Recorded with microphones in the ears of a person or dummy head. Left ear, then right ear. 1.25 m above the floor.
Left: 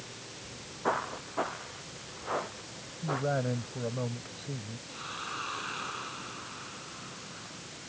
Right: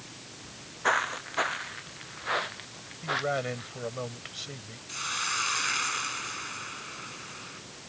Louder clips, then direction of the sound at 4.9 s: Right 8 dB; 60° right (ahead or behind).